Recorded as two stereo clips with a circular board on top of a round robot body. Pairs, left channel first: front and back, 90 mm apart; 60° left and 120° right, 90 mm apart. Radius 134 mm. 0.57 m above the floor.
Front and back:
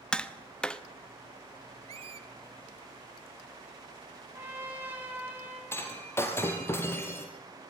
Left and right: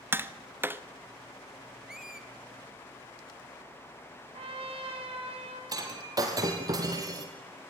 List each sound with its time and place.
0.1 s tapping: 75° right, 1.4 m
1.9 s a squeak: 155° left, 1.1 m
4.3 s a trumpet: 110° right, 5.5 m
5.7 s breaking glass: 65° right, 2.5 m